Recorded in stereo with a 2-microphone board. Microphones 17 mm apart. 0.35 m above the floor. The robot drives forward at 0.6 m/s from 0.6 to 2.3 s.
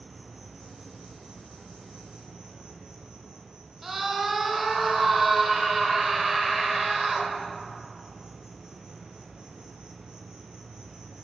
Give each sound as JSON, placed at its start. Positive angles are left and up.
{"t": 0.0, "sound": "an insect", "side_deg": -60, "distance_m": 2.5}
{"t": 3.8, "sound": "a scream", "side_deg": -20, "distance_m": 1.1}